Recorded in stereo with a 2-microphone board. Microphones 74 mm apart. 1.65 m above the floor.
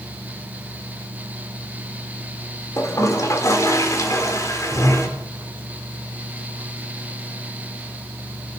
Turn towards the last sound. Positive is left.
turn(degrees=45)  # may be behind; listen again after turning